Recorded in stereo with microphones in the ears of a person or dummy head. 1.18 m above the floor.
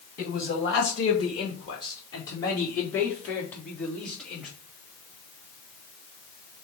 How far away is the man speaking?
About 2 m.